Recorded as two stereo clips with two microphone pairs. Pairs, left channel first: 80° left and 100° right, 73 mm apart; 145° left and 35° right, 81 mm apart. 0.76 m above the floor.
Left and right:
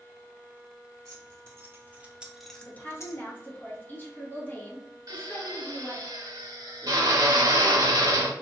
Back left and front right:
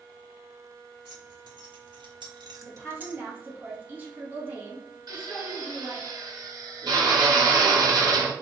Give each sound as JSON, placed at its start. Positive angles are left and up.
{"t": 1.1, "sound": "keys jangling", "azimuth_deg": -55, "distance_m": 1.3}
{"t": 2.6, "sound": "a woman speaking", "azimuth_deg": 25, "distance_m": 1.3}
{"t": 5.1, "sound": "a drill", "azimuth_deg": -70, "distance_m": 1.0}